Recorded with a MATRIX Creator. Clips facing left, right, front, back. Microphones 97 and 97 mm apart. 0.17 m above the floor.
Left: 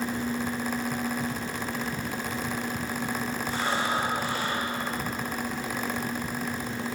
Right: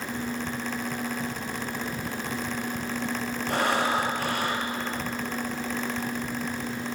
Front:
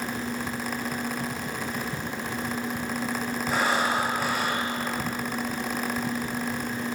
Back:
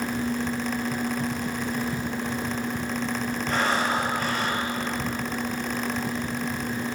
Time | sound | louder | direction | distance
3.5 | breathing | right 4 dB, even | 85° right | 4.5 m